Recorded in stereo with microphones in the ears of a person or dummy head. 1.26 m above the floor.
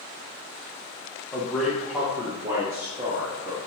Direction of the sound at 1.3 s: 15° left (ahead or behind).